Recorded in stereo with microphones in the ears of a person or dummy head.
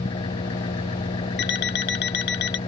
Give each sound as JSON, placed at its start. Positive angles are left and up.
{"t": 0.0, "sound": "an engine running", "side_deg": 25}
{"t": 1.4, "sound": "an alarm clock", "side_deg": 55}